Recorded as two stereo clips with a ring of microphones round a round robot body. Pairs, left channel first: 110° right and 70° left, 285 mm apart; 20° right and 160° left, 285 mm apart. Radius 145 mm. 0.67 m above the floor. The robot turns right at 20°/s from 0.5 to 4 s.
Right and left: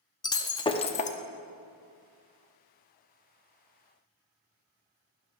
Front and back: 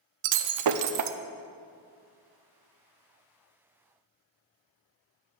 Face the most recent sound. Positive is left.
turn(degrees=-120)